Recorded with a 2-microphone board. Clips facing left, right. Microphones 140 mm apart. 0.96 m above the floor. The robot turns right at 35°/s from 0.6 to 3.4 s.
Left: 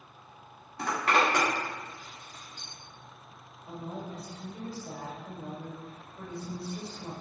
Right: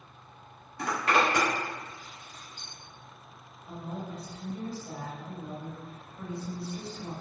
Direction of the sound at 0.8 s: 35° left (ahead or behind).